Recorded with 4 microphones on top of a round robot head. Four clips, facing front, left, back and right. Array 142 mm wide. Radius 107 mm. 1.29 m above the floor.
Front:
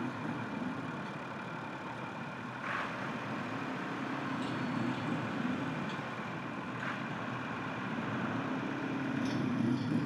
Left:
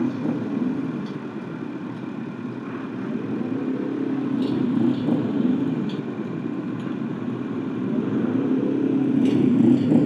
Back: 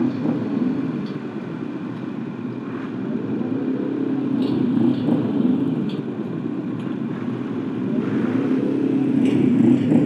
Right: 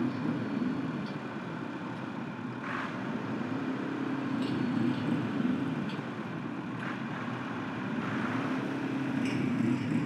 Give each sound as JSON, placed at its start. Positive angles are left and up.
{"t": 0.0, "sound": "a motorcycle", "azimuth_deg": 165}